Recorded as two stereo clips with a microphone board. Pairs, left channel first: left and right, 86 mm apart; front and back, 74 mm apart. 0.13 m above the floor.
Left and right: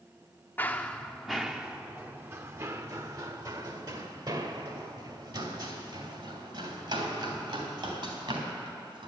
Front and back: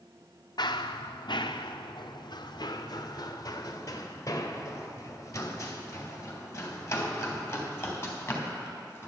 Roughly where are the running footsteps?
Ahead.